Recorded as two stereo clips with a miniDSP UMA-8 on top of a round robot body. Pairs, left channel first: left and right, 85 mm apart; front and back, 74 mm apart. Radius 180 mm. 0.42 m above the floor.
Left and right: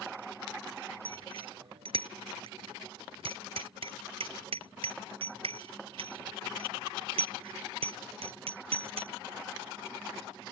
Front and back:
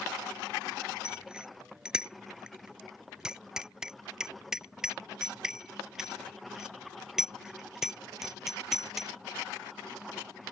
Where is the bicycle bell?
100° right; by 9.1 s 95° right.